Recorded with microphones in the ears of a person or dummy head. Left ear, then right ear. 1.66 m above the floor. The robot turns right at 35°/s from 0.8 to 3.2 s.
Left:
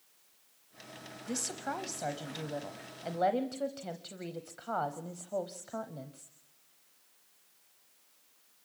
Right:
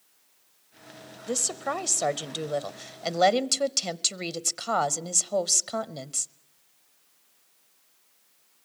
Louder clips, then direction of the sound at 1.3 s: Right 8 dB; 150° right.